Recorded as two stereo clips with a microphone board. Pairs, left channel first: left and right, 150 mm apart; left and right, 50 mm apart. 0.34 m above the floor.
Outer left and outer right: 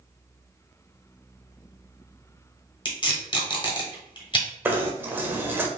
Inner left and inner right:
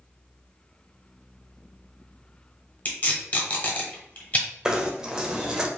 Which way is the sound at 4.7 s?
15° right (ahead or behind).